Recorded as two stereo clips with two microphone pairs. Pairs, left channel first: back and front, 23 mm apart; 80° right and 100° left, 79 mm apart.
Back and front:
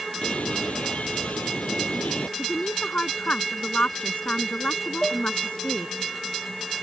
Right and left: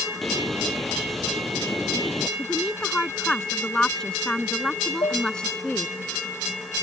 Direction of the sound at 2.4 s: 160° right.